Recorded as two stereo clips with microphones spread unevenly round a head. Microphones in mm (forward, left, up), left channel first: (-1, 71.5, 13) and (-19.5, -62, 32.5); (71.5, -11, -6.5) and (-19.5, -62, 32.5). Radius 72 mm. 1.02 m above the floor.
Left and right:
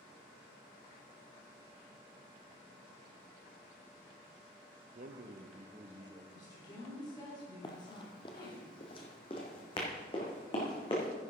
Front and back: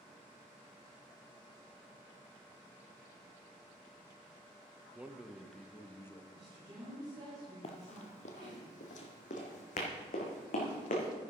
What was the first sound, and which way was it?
A man speaking, 70° right.